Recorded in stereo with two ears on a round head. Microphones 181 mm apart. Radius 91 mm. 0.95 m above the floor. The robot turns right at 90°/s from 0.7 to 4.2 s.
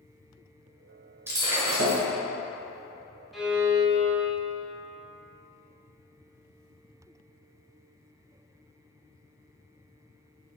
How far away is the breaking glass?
About 1.8 m.